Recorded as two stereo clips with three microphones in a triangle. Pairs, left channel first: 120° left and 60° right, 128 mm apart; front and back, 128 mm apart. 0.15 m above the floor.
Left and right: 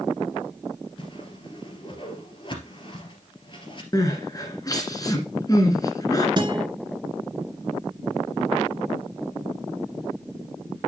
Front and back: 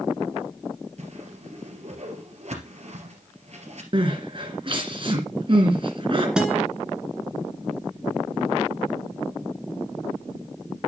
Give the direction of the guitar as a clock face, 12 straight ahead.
3 o'clock.